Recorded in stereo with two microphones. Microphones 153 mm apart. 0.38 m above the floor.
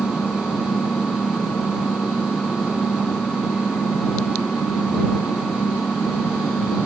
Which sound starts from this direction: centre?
An engine running, at 0.0 s.